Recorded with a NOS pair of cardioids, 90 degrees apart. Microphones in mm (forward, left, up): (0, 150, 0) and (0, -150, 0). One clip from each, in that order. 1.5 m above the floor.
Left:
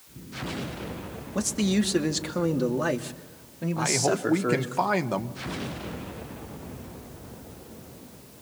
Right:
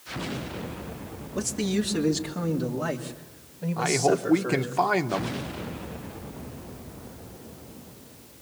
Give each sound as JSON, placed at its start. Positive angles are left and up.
{"t": 1.4, "sound": "a man speaking", "azimuth_deg": 35, "distance_m": 2.5}
{"t": 3.8, "sound": "a man speaking", "azimuth_deg": -5, "distance_m": 1.3}